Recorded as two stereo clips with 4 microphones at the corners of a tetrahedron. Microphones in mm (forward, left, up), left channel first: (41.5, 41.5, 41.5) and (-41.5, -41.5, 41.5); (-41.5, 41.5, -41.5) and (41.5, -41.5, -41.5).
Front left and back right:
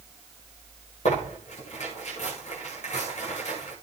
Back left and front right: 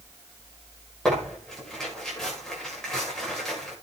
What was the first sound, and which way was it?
Tearing paper, 50° left.